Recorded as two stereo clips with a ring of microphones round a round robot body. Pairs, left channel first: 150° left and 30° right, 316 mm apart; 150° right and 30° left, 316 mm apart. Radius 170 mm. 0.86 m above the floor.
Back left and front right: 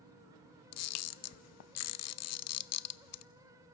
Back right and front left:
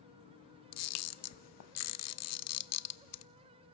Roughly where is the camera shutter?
Behind.